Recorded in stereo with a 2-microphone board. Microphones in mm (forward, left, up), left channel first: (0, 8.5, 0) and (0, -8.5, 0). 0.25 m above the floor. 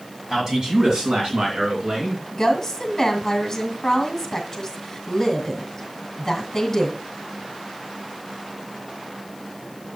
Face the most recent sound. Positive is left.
turn(degrees=30)  # may be behind; listen again after turning